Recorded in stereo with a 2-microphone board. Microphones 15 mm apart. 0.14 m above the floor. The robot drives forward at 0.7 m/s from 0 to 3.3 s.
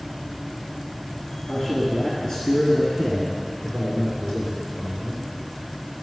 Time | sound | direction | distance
1.5 | a man speaking | 40° left (ahead or behind) | 2.5 m